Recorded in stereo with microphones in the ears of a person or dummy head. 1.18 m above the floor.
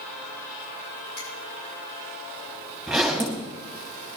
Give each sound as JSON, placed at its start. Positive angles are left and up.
{"t": 1.2, "sound": "a finger snap", "side_deg": 55, "distance_m": 8.0}
{"t": 2.9, "sound": "a zipper", "side_deg": 0, "distance_m": 3.5}